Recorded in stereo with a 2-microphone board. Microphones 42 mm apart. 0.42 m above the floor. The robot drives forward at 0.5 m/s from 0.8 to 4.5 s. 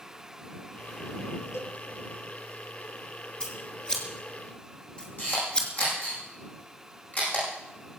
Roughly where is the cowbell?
Left.